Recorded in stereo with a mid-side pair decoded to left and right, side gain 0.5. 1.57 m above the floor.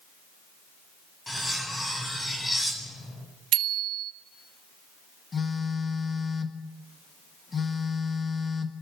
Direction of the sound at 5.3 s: 30° left.